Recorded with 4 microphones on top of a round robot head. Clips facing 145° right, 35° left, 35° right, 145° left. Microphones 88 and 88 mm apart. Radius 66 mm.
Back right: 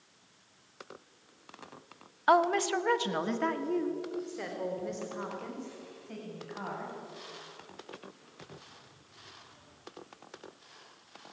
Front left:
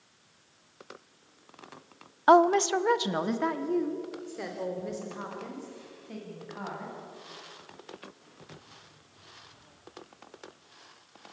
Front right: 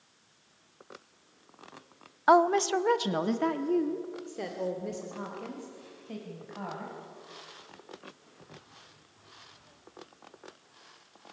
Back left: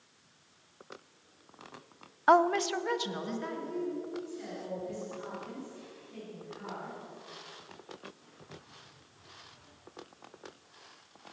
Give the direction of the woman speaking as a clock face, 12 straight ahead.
11 o'clock.